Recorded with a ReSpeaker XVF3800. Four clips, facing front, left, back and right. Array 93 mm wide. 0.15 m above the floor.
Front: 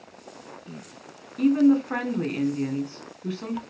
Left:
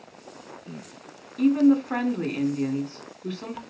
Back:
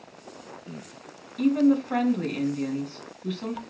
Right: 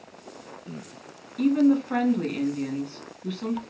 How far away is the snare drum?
I don't hear a snare drum.